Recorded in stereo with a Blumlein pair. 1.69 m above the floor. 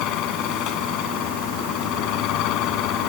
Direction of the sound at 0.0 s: 40° left.